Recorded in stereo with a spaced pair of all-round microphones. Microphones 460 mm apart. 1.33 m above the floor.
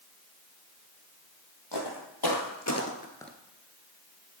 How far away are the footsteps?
About 3 m.